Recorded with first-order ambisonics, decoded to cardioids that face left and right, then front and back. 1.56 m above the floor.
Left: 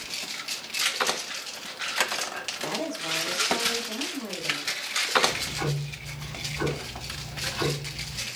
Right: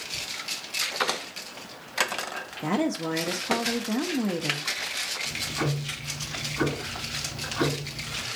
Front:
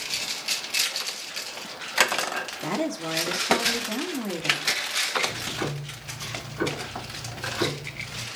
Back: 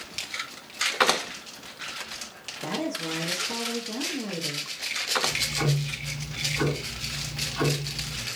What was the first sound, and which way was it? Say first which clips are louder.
A woman speaking: right 5 dB, back 2 dB; 80° right.